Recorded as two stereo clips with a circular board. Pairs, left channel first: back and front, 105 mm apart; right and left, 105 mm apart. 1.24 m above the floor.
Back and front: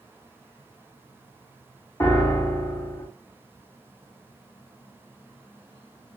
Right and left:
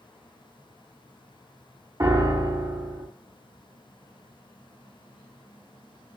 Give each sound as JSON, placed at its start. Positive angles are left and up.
{"t": 2.0, "sound": "a piano", "azimuth_deg": 135, "distance_m": 0.9}